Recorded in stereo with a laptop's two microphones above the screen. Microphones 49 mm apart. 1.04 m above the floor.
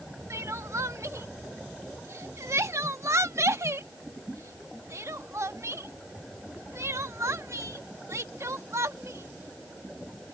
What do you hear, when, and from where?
0.3 s crying: 75° right (ahead or behind)